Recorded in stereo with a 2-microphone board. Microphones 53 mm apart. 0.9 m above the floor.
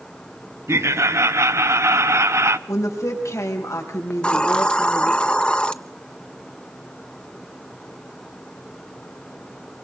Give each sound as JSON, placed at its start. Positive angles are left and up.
{"t": 0.7, "sound": "laughter", "side_deg": -65, "distance_m": 1.2}
{"t": 2.7, "sound": "a woman speaking", "side_deg": 85, "distance_m": 5.0}
{"t": 4.1, "sound": "a hiss", "side_deg": 20, "distance_m": 0.8}